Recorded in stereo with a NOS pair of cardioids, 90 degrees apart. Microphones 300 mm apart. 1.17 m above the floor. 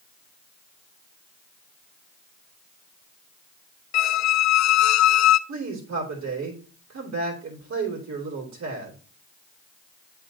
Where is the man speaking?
55° right, 2.5 m.